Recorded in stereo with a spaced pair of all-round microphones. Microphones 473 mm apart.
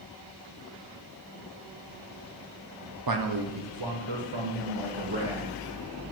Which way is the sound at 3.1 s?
50° right (ahead or behind).